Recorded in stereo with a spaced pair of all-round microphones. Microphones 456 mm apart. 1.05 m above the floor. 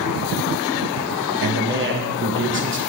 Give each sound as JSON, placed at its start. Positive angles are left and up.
{"t": 1.4, "sound": "a man speaking", "side_deg": -25, "distance_m": 1.0}